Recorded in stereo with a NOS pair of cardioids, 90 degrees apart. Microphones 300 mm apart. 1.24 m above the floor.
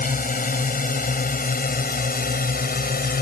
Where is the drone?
30° left.